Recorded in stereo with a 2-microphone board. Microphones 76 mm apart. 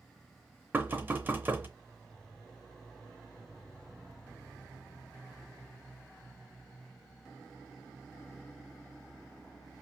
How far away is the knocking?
About 0.6 m.